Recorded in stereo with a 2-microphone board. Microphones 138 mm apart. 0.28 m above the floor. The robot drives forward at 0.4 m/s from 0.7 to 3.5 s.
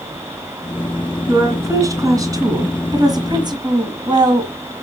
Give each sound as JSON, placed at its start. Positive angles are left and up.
{"t": 1.3, "sound": "a woman speaking", "side_deg": -25, "distance_m": 2.5}